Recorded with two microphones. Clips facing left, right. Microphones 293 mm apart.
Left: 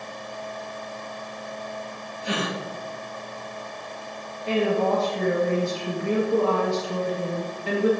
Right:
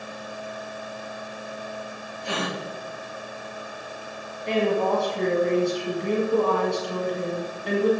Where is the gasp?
20° left (ahead or behind), 3 m.